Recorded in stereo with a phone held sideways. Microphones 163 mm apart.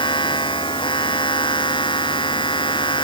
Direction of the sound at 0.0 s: 30° left (ahead or behind).